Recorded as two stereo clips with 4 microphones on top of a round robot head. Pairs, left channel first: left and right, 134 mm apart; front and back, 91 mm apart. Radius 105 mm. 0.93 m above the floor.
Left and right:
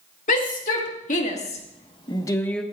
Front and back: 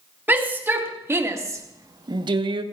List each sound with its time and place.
0.3 s a shout: 115° left, 3 m; by 2.6 s straight behind, 0.9 m